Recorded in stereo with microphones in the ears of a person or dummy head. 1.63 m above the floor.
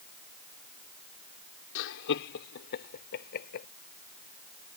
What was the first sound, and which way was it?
Laughter, 70° left (ahead or behind).